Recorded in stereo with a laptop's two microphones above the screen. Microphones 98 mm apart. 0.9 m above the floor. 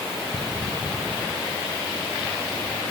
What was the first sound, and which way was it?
Only background noise.